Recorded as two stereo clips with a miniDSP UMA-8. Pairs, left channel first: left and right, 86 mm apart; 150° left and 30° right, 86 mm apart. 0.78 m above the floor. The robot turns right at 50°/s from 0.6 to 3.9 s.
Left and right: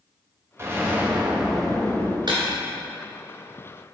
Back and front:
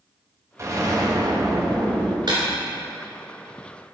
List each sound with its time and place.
0.6 s an explosion: 55° right, 0.7 m; by 2.2 s 25° left, 0.7 m
2.3 s breaking glass: 60° right, 2 m; by 2.4 s 50° right, 2 m